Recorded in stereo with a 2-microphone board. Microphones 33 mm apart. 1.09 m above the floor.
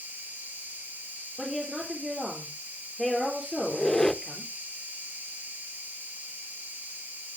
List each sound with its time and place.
0.0 s an insect: 75° right (ahead or behind), 7 m
1.4 s a woman speaking: centre (ahead or behind), 4 m
3.6 s a squeak: 10° left (ahead or behind), 0.6 m